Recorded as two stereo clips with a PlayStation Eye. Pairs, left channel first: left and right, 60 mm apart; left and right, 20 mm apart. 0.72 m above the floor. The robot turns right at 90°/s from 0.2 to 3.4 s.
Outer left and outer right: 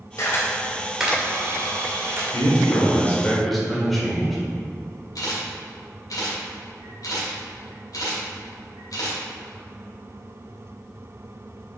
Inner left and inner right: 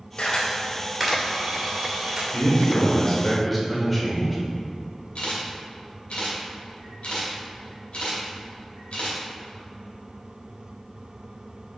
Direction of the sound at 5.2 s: 80° left.